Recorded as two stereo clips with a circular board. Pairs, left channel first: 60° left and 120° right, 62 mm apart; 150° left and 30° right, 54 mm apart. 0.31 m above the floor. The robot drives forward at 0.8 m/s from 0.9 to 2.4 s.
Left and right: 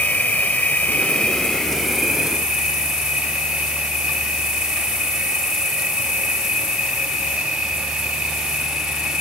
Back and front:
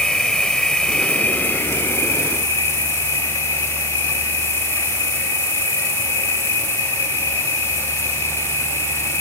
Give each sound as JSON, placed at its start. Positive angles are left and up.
{"t": 0.0, "sound": "an insect", "azimuth_deg": 95, "distance_m": 0.8}